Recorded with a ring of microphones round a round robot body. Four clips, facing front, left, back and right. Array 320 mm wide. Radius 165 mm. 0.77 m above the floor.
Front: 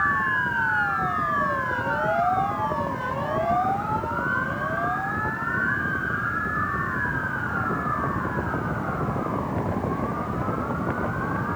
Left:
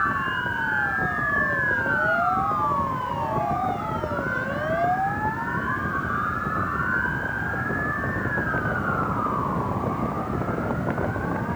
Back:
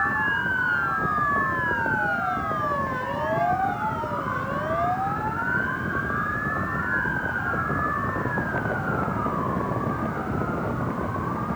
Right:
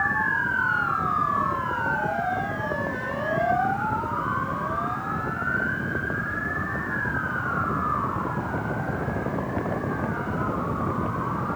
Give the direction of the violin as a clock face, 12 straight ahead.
I don't hear a violin.